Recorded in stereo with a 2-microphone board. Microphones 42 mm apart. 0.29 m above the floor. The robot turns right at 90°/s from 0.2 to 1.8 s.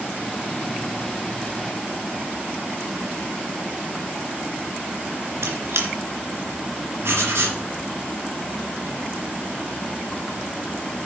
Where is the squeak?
75° right (ahead or behind), 2.5 m.